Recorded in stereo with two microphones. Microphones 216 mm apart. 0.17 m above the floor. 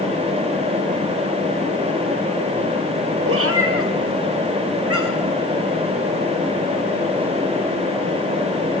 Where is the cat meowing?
75° right (ahead or behind), 0.9 m; by 5.3 s 85° right, 2 m.